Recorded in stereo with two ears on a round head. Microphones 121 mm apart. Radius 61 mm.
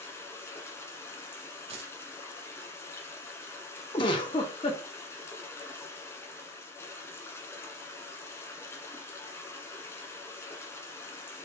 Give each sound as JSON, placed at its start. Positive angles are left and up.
{"t": 0.0, "sound": "running water", "side_deg": 20, "distance_m": 0.9}
{"t": 1.7, "sound": "a dropped coin", "side_deg": -45, "distance_m": 1.2}
{"t": 3.9, "sound": "a giggle", "side_deg": 35, "distance_m": 0.7}